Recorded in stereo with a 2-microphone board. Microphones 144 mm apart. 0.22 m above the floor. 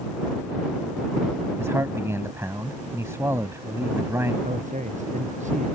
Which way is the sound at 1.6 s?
20° right (ahead or behind).